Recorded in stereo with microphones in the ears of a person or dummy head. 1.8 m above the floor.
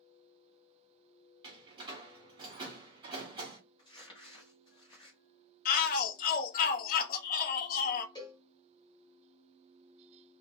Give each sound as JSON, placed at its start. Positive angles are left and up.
{"t": 1.4, "sound": "a door slam", "side_deg": -25, "distance_m": 1.2}
{"t": 3.8, "sound": "crumpling", "side_deg": 25, "distance_m": 0.9}
{"t": 5.7, "sound": "a shout", "side_deg": 55, "distance_m": 0.7}
{"t": 8.2, "sound": "a cowbell", "side_deg": 20, "distance_m": 1.0}